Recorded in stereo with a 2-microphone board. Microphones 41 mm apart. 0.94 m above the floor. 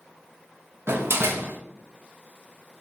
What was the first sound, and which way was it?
A door slam, 75° right (ahead or behind).